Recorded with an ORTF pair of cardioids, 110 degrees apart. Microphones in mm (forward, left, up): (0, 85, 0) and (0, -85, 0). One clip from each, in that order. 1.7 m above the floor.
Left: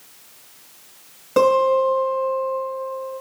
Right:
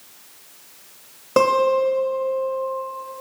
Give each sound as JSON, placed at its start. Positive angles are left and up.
{"t": 1.4, "sound": "a guitar", "azimuth_deg": -25, "distance_m": 1.5}